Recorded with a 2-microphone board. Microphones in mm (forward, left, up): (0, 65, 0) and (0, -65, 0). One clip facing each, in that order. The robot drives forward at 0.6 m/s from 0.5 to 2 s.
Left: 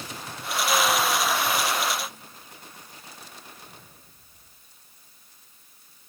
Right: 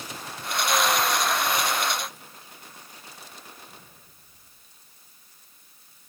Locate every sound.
Only background noise.